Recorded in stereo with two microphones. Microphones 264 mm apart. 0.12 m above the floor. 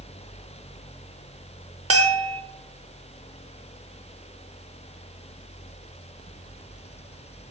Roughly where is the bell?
Right.